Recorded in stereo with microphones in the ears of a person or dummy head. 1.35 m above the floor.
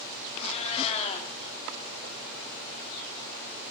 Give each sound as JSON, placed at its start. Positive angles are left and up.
{"t": 0.3, "sound": "a cat meowing", "side_deg": 35, "distance_m": 1.8}